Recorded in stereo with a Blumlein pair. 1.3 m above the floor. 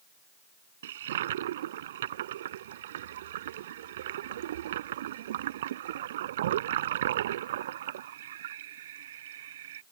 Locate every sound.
0.8 s a toilet flushing: 60° right